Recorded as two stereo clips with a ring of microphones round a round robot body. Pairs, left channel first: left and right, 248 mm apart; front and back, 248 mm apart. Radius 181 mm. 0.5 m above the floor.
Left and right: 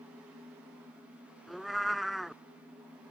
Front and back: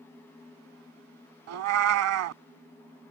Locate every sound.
1.5 s a cat meowing: straight behind